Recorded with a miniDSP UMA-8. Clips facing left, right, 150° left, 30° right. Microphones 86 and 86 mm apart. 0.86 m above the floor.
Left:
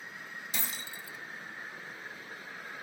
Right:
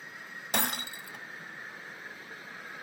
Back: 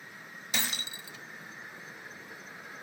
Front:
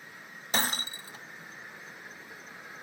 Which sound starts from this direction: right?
Breaking glass, at 0.5 s.